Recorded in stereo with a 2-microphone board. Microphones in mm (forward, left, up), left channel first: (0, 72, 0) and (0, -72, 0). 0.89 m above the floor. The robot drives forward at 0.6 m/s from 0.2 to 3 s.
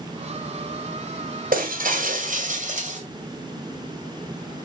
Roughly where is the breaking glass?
Right.